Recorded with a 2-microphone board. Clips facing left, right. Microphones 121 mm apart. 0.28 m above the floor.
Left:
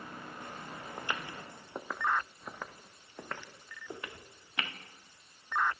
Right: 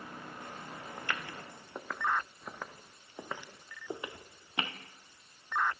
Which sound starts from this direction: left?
Footsteps, at 1.0 s.